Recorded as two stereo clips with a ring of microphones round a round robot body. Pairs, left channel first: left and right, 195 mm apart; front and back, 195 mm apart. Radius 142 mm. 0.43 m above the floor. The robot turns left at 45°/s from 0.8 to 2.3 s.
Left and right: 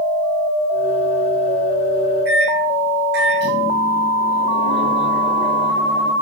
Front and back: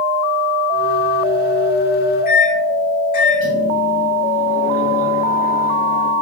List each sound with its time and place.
2.2 s a microwave: 50° right, 2.5 m